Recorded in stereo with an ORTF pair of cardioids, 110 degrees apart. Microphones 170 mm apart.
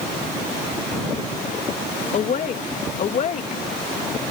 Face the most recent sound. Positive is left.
turn(degrees=45)